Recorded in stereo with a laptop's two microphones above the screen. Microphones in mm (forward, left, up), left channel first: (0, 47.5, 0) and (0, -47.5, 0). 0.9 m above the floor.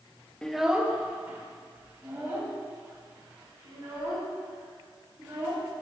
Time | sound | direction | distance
0.4 | a child speaking | 10° left (ahead or behind) | 0.6 m